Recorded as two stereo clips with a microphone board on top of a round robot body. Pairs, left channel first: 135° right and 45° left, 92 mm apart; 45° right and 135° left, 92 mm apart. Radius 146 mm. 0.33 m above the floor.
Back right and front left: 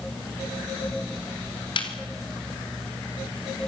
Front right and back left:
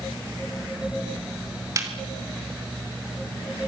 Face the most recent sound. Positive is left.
turn(degrees=-170)